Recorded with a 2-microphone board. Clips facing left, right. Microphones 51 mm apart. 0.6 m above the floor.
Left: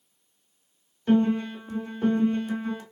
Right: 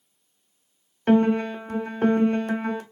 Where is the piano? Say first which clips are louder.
Right 3 dB; 55° right (ahead or behind), 0.6 m.